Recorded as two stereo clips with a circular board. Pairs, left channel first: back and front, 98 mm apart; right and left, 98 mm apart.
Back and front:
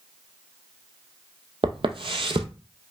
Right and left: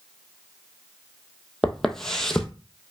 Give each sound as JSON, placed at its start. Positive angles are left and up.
{"t": 1.6, "sound": "footsteps", "azimuth_deg": -5, "distance_m": 0.6}